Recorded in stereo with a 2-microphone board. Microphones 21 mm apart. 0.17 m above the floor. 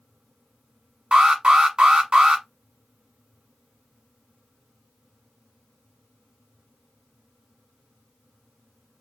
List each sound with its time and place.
1.1 s an alarm: 40° right (ahead or behind), 1.1 m